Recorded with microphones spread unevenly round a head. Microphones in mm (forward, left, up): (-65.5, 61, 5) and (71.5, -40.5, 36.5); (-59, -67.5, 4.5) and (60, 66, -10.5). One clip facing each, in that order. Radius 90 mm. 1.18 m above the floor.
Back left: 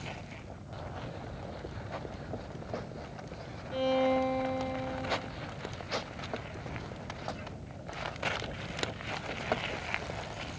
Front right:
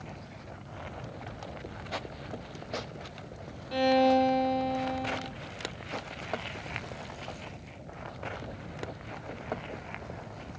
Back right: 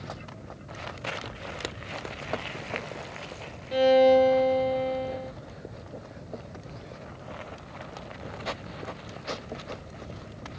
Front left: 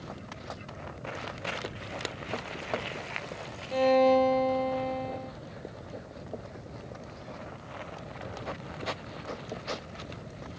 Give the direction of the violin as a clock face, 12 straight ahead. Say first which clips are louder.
Front right 4 dB, back right 4 dB; 2 o'clock.